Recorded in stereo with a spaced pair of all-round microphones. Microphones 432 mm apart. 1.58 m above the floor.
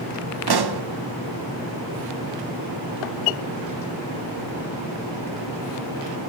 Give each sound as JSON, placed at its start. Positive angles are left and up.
{"t": 0.5, "sound": "a pop", "side_deg": -55, "distance_m": 0.5}